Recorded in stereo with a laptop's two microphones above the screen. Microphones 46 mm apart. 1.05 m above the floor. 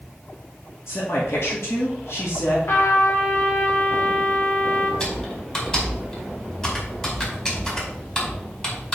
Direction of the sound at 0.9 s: 65° left (ahead or behind).